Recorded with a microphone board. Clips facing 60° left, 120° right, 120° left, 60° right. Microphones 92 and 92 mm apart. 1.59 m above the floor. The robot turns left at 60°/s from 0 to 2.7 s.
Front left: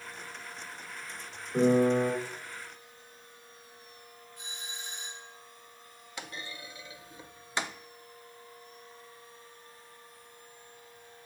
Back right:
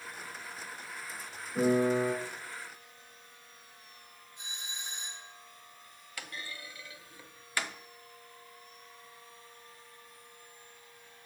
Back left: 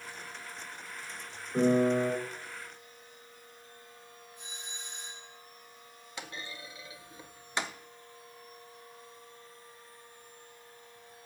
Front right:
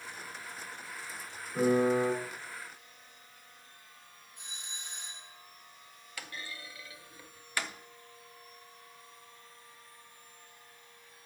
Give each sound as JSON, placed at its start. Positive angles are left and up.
{"t": 1.5, "sound": "a piano", "azimuth_deg": 70, "distance_m": 5.0}
{"t": 4.4, "sound": "a doorbell", "azimuth_deg": -55, "distance_m": 3.5}
{"t": 6.2, "sound": "a clunk", "azimuth_deg": 90, "distance_m": 0.6}